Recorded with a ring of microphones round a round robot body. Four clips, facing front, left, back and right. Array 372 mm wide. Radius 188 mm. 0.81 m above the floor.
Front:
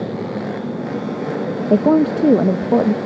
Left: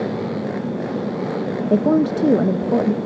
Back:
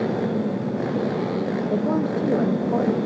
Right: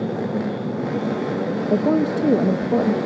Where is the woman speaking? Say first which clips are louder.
Left 3 dB, front 11 dB; 10° left, 0.9 m.